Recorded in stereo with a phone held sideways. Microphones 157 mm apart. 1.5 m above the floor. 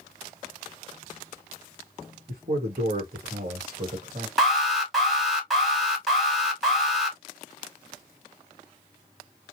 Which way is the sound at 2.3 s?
60° right (ahead or behind).